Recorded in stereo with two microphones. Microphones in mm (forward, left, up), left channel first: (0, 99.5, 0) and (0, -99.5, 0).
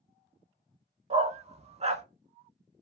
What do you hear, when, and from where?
1.1 s a dog barking: 35° right (ahead or behind), 0.6 m